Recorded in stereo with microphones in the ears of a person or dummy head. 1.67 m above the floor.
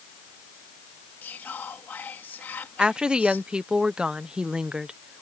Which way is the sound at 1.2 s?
10° left (ahead or behind).